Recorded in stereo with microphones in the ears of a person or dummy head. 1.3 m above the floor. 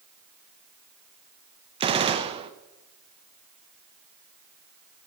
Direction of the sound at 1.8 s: 25° right (ahead or behind).